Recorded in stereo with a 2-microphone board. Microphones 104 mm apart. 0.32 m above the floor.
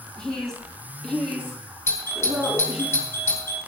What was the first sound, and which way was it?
A woman speaking, 5° left (ahead or behind).